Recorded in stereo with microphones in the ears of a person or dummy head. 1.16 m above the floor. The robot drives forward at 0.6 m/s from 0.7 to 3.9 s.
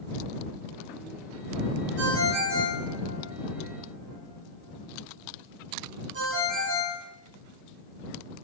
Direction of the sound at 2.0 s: 85° right.